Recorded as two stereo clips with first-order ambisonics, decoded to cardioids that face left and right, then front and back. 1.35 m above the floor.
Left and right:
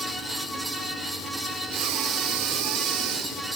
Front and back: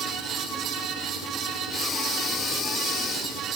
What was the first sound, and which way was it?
Breathing, 65° right.